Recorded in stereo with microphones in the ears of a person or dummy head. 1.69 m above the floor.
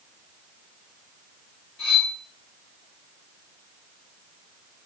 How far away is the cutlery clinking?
About 1.3 m.